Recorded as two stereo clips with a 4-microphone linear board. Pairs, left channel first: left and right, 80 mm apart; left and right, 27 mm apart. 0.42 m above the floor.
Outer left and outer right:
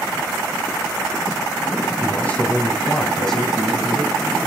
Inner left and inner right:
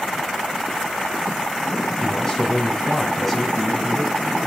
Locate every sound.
2.0 s a man speaking: 20° left (ahead or behind), 2.5 m; by 4.1 s 5° right (ahead or behind), 2.5 m